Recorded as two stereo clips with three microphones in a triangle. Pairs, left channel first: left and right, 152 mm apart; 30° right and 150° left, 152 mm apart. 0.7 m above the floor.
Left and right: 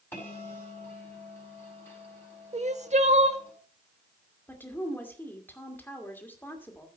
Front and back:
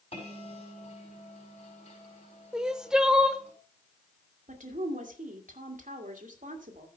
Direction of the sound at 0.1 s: 15° left.